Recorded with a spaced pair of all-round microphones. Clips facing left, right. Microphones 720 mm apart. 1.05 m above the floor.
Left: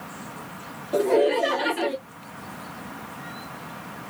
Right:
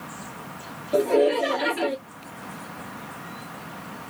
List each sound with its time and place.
0.9 s laughter: centre (ahead or behind), 0.9 m